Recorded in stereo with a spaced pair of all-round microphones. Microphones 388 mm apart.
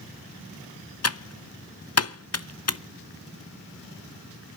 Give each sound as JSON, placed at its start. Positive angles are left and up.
{"t": 1.0, "sound": "typing on a keyboard", "side_deg": 45, "distance_m": 0.6}